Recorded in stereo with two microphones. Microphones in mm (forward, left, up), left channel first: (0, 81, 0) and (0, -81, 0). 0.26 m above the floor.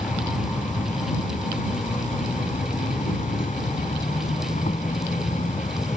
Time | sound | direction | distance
0.0 | an insect | 50° left (ahead or behind) | ?